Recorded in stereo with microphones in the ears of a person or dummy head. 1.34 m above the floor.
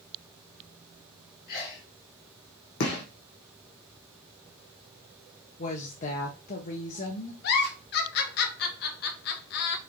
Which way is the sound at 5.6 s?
45° left (ahead or behind).